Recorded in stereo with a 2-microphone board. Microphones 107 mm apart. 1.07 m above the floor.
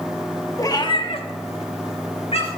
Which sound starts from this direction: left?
A cat meowing, at 0.6 s.